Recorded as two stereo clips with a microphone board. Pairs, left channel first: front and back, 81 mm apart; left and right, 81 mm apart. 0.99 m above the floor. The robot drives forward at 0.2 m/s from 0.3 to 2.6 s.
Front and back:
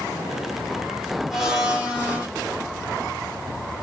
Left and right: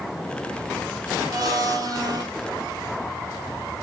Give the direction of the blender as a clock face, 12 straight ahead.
3 o'clock.